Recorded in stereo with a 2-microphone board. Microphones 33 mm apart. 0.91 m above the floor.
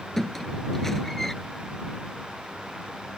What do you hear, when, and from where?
0.2 s a squeak: 10° left (ahead or behind)